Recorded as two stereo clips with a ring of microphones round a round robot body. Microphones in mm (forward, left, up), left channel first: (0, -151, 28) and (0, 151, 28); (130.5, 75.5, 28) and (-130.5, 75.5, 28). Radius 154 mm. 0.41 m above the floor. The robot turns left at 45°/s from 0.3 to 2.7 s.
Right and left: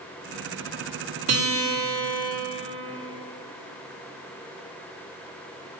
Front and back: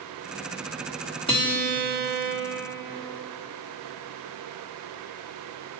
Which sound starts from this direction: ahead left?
A guitar, at 1.3 s.